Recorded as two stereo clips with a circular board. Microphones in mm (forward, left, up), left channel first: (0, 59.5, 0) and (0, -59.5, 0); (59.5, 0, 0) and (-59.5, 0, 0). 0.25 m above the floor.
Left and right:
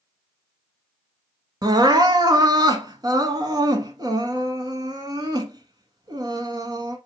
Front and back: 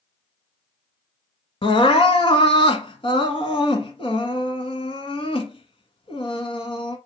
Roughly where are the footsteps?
No footsteps in this recording.